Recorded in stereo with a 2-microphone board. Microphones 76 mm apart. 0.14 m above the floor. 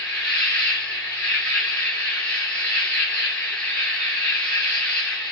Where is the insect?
15° left (ahead or behind), 1.0 m.